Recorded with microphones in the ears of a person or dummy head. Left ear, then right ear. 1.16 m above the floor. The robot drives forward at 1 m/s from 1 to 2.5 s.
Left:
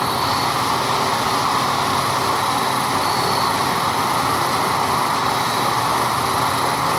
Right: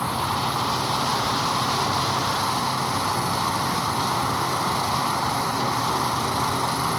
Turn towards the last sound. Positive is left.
turn(degrees=85)